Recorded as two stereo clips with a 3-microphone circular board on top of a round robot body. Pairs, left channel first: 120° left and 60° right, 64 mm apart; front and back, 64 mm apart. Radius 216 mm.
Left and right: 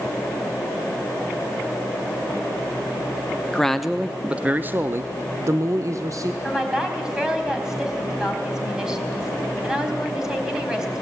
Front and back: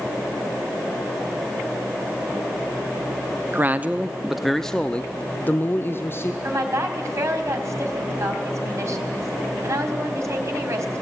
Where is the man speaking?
165° right, 1.1 m; by 6.3 s 45° right, 1.7 m.